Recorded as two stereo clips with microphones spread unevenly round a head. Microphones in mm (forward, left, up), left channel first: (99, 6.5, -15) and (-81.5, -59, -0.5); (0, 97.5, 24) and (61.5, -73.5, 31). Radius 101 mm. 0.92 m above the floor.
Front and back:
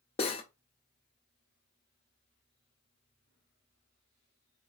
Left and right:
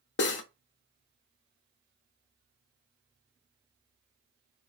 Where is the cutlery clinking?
85° left, 0.5 m.